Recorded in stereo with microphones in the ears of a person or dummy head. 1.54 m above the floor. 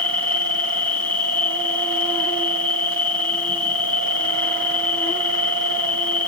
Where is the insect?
10° left (ahead or behind), 1.4 m.